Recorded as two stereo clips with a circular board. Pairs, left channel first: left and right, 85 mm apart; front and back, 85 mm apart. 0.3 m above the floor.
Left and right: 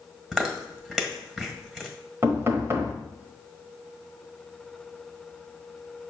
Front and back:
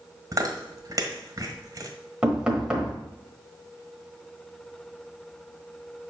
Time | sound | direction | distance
0.3 | chewing | 170° right | 1.5 m
2.2 | knocking | 110° right | 1.2 m